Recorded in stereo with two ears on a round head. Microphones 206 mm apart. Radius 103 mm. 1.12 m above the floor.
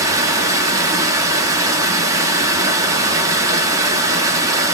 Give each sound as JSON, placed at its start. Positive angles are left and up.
{"t": 0.0, "sound": "running water", "side_deg": -15, "distance_m": 0.7}